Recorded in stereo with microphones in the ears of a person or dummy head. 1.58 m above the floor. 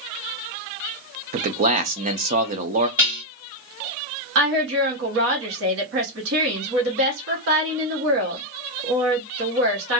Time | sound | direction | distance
1.3 | a man speaking | 40° right (ahead or behind) | 0.5 m
3.0 | dishes clattering | 10° right (ahead or behind) | 1.3 m
4.3 | a woman speaking | 70° right (ahead or behind) | 1.0 m